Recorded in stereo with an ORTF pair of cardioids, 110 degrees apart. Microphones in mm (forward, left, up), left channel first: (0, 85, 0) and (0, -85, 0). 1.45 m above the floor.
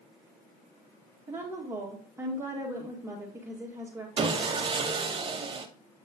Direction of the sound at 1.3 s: 15° right.